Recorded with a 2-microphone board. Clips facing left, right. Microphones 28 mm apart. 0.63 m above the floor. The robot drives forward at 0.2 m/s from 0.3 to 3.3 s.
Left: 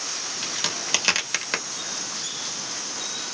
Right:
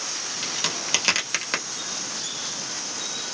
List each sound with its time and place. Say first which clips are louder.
0.4 s a crack: right 1 dB; centre (ahead or behind), 1.0 m